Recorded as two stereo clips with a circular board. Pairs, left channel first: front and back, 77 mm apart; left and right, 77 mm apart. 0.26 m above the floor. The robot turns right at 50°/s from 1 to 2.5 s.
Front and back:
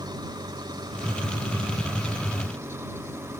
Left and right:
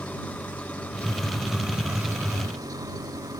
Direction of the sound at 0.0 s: 160° left.